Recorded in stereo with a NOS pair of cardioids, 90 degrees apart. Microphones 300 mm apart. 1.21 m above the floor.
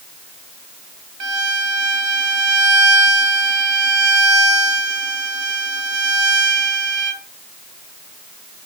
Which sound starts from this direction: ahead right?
A violin, at 1.2 s.